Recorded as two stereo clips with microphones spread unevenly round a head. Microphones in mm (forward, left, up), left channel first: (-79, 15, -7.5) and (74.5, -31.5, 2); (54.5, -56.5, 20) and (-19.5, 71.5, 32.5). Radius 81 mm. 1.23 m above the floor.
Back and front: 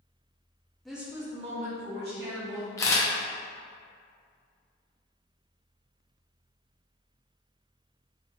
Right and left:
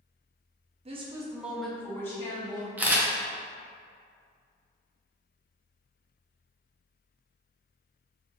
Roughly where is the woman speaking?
Left.